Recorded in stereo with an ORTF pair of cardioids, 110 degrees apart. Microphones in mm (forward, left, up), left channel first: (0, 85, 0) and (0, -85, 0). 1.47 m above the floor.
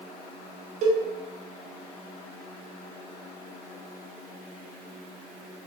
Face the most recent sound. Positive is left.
turn(degrees=-45)